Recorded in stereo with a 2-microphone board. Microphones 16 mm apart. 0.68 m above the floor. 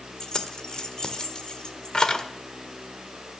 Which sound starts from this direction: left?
Keys jangling, at 0.2 s.